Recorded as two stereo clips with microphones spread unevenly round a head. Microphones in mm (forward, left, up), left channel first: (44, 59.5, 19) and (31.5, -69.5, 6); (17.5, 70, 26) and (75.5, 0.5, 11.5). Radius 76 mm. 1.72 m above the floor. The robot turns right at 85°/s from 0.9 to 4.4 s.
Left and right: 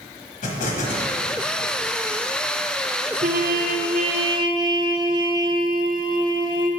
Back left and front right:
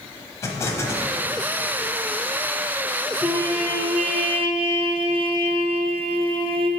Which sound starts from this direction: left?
An explosion, at 0.4 s.